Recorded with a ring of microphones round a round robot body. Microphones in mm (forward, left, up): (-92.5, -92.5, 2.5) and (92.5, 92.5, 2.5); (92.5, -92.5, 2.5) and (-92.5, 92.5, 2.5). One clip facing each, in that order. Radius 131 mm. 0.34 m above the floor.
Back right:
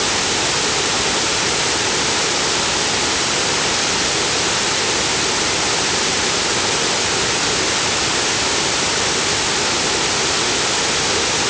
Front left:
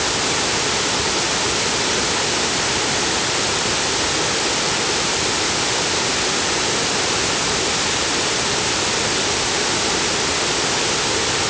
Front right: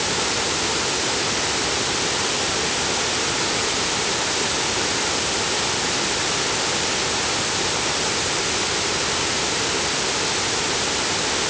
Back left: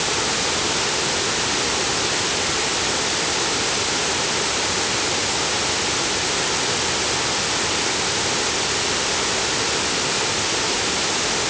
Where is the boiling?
No boiling in this recording.